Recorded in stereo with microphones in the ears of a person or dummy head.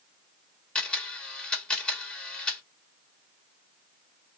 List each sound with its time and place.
0.8 s a camera shutter: 15° left (ahead or behind), 1.1 m